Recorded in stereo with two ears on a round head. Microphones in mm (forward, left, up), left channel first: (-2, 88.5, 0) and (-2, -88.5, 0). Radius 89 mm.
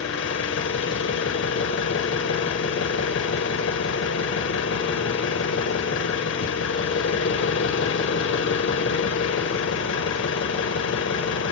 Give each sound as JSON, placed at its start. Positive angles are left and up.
{"t": 0.0, "sound": "an engine running", "side_deg": 65, "distance_m": 0.7}